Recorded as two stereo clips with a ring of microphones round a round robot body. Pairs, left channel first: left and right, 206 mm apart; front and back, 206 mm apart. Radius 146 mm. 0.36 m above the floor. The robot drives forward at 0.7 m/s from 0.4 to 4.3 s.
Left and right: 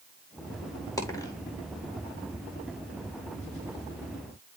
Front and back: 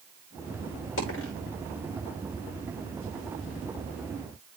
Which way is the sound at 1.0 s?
15° left.